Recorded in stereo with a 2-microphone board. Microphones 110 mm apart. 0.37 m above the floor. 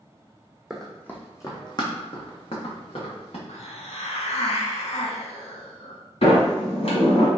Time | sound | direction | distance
0.7 | running footsteps | 5° right (ahead or behind) | 0.9 m
3.5 | a hiss | 75° left (ahead or behind) | 0.6 m
6.2 | a sliding door | 65° left (ahead or behind) | 1.2 m